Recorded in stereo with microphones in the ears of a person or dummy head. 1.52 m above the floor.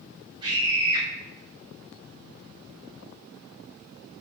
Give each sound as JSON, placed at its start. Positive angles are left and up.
{"t": 0.4, "sound": "a scream", "side_deg": -25, "distance_m": 1.2}